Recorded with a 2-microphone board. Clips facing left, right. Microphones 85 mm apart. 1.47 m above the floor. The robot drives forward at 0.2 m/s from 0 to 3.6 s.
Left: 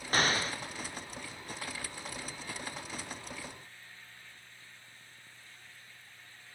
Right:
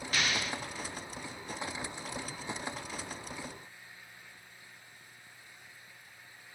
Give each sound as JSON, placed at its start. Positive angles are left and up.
{"t": 0.1, "sound": "an explosion", "side_deg": 40, "distance_m": 0.7}